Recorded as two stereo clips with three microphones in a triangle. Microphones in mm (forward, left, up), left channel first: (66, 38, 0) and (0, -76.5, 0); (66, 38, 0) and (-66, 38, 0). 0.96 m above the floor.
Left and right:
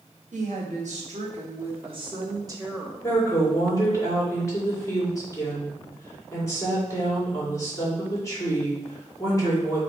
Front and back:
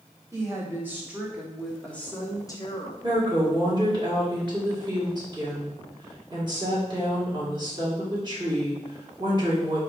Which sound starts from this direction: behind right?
A woman speaking, at 0.3 s.